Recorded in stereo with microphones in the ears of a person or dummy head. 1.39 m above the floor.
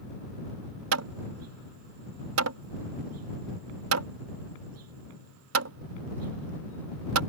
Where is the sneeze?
No sneeze in this recording.